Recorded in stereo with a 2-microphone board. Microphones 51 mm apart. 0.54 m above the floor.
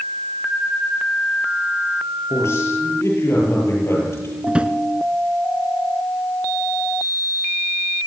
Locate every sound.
2.3 s a man speaking: 65° left (ahead or behind), 9.5 m
4.5 s a drawer: 20° right (ahead or behind), 1.4 m